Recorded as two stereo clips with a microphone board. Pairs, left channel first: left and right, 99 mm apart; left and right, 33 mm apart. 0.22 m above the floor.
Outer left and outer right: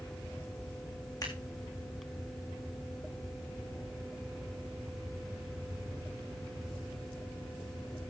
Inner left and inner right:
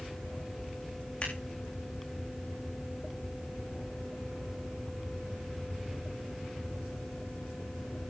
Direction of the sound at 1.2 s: 40° left (ahead or behind).